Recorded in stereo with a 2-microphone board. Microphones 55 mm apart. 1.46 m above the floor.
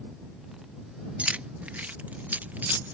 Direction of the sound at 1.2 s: 25° right (ahead or behind).